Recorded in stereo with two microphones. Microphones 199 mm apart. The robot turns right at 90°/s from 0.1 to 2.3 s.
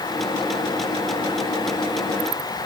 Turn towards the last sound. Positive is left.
No sound to turn to.